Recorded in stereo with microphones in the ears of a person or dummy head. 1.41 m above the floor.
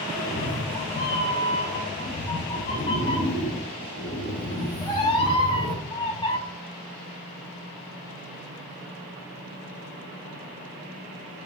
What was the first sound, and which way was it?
A cat meowing, 25° left (ahead or behind).